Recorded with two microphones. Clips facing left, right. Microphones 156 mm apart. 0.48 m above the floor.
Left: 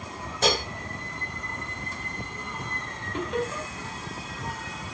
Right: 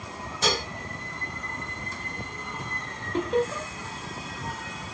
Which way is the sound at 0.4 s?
50° left (ahead or behind).